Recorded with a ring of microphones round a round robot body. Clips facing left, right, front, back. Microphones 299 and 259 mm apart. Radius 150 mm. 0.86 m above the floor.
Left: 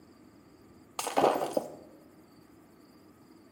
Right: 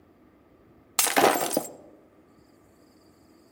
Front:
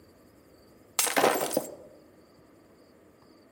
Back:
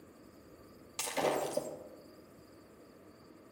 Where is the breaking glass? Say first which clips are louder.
Right 4 dB, front 7 dB; 40° right, 0.6 m.